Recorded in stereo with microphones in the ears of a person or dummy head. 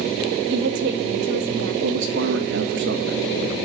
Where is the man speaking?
60° right (ahead or behind), 1.7 m.